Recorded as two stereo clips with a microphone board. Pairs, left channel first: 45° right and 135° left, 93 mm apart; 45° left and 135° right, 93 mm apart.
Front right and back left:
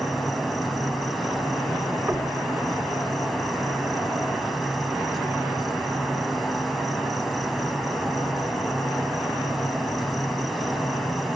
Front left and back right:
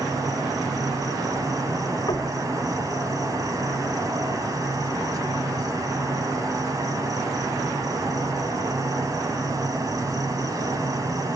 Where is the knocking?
75° left, 1.4 m.